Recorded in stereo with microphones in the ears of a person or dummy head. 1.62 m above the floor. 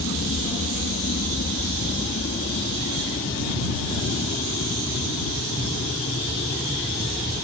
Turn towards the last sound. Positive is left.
turn(degrees=35)  # may be behind; listen again after turning